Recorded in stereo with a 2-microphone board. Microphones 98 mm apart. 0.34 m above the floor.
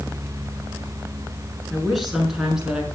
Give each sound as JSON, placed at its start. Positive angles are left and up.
{"t": 1.7, "sound": "a woman speaking", "side_deg": 0, "distance_m": 4.5}